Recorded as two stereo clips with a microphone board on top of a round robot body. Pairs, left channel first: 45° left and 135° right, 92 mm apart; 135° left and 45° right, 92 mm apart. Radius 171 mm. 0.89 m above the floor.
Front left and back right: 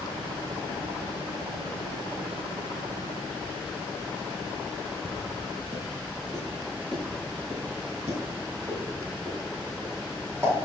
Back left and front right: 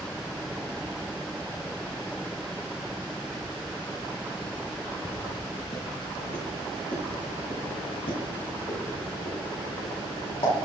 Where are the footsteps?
170° left, 0.8 m; by 10.5 s 160° left, 3 m.